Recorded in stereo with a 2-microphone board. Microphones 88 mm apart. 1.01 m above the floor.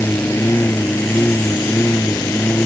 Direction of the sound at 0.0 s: 20° left (ahead or behind).